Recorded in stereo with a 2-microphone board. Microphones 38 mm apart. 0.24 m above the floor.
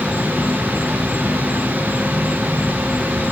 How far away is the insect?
About 5.5 m.